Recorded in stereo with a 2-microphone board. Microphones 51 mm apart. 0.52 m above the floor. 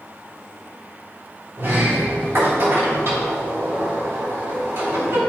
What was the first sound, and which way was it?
A sliding door, 60° right (ahead or behind).